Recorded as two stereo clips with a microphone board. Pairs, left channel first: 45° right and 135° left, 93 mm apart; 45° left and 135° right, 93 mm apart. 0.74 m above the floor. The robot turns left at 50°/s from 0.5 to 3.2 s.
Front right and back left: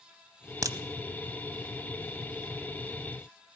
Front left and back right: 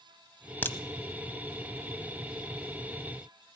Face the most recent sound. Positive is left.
turn(degrees=-25)